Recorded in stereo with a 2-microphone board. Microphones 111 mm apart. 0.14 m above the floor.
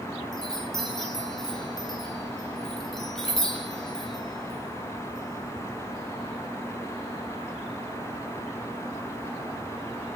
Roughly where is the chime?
Centre.